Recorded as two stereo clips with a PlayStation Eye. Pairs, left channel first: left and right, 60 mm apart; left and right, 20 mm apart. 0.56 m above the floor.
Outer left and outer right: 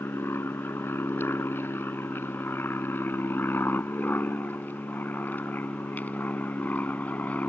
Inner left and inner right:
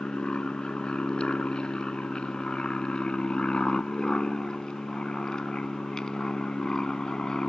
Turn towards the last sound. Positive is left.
turn(degrees=25)  # may be behind; listen again after turning